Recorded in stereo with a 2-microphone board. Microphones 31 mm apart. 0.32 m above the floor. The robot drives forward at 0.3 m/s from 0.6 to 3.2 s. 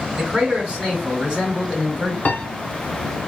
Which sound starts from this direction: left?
A piano, at 2.2 s.